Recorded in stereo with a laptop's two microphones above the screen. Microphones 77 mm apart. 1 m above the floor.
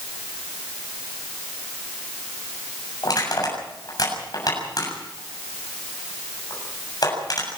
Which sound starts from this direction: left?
Crushing, at 3.0 s.